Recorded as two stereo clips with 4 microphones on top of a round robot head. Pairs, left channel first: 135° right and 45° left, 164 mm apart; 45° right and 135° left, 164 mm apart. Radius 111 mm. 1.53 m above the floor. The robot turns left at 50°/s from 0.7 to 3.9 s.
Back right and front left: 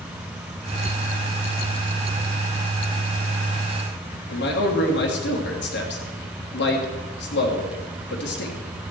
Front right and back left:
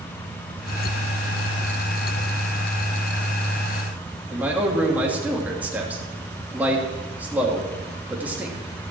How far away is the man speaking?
About 3 m.